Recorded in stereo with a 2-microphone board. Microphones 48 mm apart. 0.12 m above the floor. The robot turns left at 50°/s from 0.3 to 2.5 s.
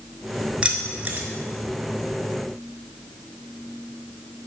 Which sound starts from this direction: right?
Keys jangling, at 0.6 s.